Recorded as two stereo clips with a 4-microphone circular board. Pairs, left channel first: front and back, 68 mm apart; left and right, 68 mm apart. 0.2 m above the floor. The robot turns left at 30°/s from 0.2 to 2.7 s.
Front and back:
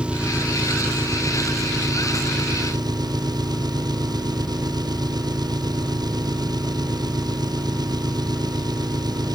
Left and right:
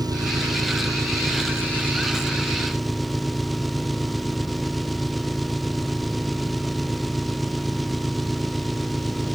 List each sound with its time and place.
0.0 s an engine running: 105° right; by 9.4 s straight behind